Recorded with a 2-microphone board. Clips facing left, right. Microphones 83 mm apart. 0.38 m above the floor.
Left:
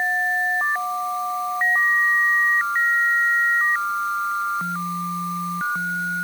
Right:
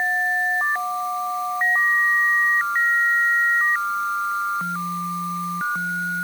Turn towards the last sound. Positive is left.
No sound to turn to.